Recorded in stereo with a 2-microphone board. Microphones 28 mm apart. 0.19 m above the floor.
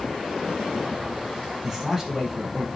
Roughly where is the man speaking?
Centre.